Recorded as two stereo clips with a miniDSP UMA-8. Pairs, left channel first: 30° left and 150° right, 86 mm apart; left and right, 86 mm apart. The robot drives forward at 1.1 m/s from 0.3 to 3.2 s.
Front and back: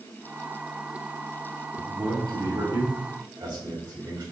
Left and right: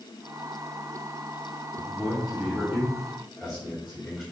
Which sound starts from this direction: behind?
A man speaking, at 1.8 s.